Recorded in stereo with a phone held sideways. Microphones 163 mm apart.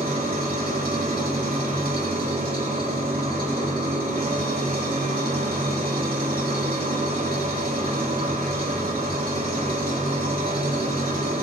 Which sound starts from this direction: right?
An engine running, at 0.0 s.